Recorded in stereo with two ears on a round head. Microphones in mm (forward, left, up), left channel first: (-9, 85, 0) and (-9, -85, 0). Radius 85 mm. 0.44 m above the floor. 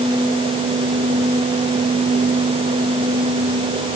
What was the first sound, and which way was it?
Only background noise.